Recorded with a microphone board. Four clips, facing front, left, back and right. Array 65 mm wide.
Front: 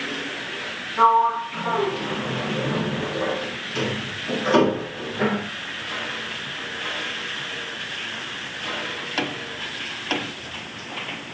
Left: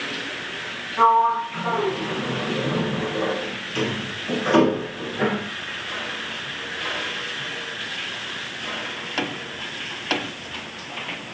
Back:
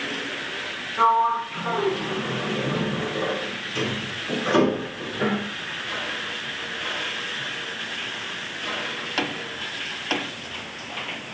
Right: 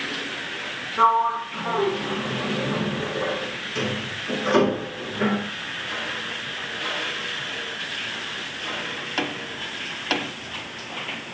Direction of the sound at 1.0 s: 55° left.